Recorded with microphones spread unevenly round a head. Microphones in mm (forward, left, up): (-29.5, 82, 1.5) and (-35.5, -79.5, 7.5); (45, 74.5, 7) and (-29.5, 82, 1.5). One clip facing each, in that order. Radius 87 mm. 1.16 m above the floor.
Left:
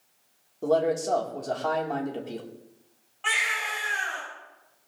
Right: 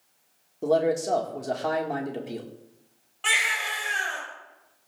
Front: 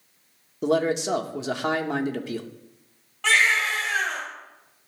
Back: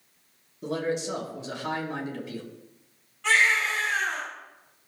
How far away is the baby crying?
About 5 m.